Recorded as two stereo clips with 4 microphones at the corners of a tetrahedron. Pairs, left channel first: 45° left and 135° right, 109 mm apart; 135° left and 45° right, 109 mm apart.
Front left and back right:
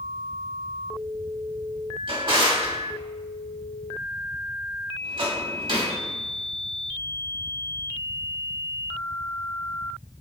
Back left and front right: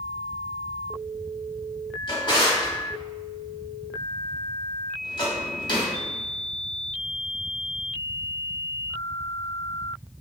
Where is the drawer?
175° right, 0.9 m.